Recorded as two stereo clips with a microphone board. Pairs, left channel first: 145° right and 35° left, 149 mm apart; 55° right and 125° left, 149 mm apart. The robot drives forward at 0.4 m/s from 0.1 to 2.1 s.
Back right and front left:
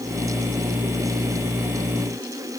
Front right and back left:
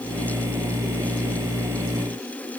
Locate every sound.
Only background noise.